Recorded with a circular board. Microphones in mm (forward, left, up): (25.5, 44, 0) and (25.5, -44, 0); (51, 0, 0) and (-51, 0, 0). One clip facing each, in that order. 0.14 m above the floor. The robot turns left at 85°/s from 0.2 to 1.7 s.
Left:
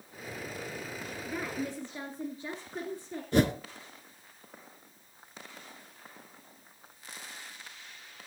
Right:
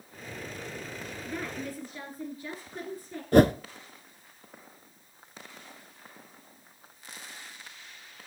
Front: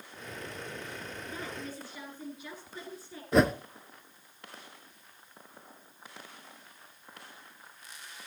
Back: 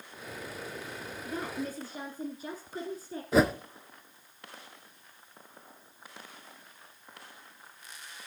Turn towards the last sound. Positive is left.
turn(degrees=-90)